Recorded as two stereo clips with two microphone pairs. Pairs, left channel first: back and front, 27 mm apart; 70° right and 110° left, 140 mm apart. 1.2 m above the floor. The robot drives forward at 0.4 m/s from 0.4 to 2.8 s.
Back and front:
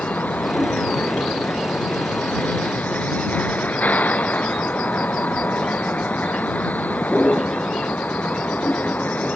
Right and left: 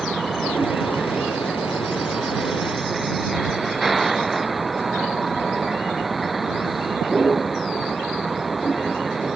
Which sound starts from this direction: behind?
A vehicle, at 0.0 s.